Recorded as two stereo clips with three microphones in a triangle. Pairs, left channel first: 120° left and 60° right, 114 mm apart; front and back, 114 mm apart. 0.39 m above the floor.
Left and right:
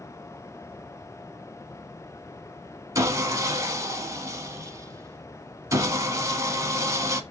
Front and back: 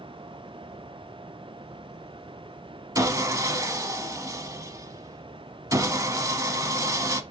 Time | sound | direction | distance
3.0 | sawing | 120° right | 0.7 m